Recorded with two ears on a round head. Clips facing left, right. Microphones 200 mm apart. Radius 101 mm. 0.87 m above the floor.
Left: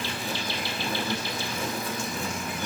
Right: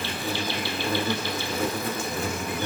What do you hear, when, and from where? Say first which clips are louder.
0.0 s an insect: right 3 dB; 50° right (ahead or behind), 1.4 m